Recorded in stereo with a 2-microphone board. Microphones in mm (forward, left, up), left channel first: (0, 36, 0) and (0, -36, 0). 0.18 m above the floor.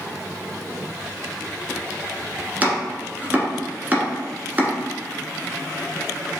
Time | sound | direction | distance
2.6 | chopping | 25° right (ahead or behind) | 1.2 m